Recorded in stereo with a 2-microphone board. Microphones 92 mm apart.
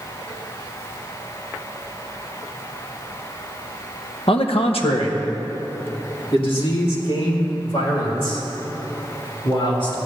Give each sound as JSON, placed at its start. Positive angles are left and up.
{"t": 4.3, "sound": "a man speaking", "side_deg": 75, "distance_m": 0.9}